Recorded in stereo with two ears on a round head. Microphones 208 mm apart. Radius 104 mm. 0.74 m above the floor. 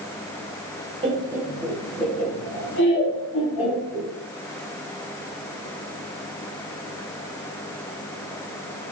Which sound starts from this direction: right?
Laughter, at 1.0 s.